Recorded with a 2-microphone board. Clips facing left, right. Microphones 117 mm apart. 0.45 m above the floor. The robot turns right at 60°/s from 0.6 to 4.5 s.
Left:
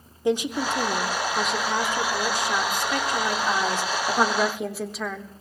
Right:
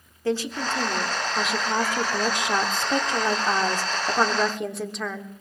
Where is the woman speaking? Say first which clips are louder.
Left 2 dB; 15° left (ahead or behind), 1.0 m; by 5.3 s 5° left (ahead or behind), 1.0 m.